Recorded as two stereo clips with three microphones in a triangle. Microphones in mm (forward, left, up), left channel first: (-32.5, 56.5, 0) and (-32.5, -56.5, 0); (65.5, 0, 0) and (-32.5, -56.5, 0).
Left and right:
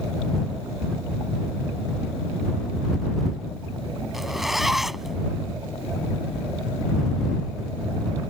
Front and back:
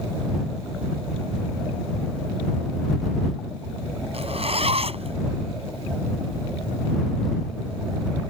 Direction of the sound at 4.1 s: Straight behind.